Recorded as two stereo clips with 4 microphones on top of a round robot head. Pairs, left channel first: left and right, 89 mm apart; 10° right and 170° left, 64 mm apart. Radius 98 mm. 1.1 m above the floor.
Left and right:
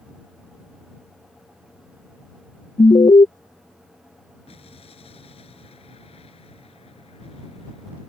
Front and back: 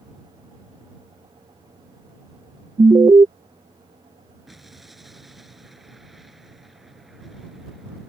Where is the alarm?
135° left.